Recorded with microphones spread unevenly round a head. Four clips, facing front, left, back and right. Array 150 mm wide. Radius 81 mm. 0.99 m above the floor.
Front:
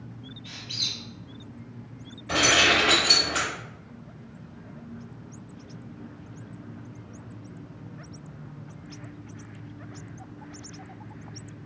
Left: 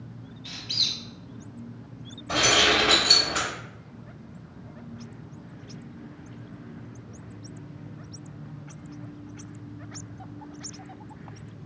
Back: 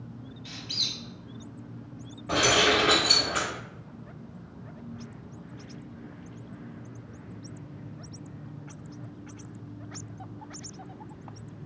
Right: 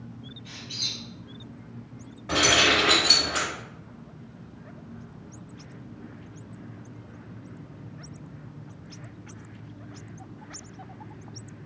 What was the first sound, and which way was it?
A squeak, 125° left.